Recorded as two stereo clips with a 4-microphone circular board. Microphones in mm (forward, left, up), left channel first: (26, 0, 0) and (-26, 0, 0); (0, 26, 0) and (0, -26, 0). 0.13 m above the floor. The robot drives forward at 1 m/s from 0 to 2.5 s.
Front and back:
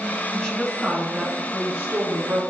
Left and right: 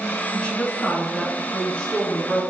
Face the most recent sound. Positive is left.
turn(degrees=160)